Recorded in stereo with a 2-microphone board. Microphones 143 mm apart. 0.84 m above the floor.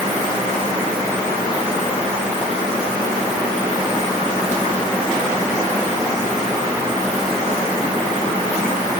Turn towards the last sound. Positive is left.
No sound to turn to.